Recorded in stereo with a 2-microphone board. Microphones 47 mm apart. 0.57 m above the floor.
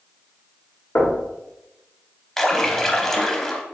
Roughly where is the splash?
Centre.